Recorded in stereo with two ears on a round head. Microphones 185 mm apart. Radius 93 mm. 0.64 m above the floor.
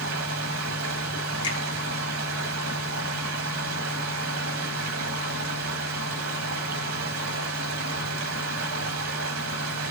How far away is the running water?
About 1.3 m.